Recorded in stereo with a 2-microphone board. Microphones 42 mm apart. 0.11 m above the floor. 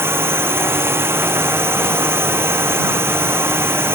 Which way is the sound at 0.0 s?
80° right.